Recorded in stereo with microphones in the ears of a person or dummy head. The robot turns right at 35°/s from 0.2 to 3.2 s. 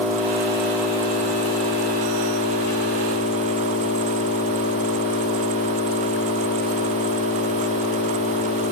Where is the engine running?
10° left, 1.8 m; by 8.7 s 115° left, 1.8 m.